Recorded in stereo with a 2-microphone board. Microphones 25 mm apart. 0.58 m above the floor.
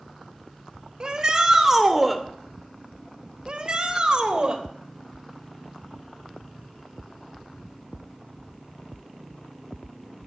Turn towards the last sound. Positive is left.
turn(degrees=-40)  # may be behind; listen again after turning